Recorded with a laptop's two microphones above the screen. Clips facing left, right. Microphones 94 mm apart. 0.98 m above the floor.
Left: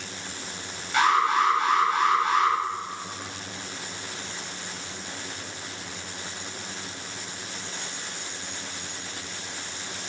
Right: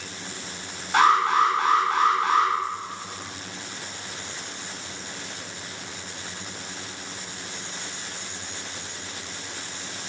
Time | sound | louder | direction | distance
0.9 | an alarm | right 3 dB | 75° right (ahead or behind) | 8 m